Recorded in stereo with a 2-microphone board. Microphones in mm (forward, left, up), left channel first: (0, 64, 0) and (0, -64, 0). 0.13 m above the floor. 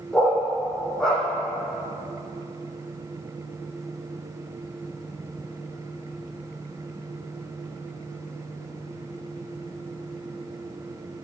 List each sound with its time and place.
0.1 s a dog barking: 5° left (ahead or behind), 2 m